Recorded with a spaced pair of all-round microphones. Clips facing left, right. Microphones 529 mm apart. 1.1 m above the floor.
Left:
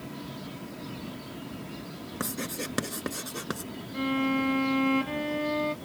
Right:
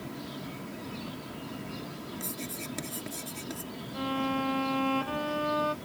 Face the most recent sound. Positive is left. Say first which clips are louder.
# left 5 dB
turn(degrees=40)  # may be behind; listen again after turning